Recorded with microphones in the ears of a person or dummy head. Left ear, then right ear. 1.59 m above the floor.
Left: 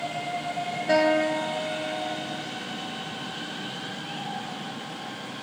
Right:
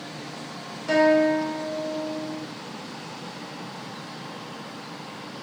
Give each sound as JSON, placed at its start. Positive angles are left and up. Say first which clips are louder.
{"t": 0.9, "sound": "a guitar", "louder": "right 3 dB", "side_deg": -55, "distance_m": 1.5}